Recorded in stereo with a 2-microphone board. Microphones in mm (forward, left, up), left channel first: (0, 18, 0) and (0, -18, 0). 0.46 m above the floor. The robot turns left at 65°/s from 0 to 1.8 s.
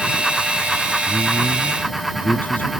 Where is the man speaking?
105° left; by 2.7 s 55° left.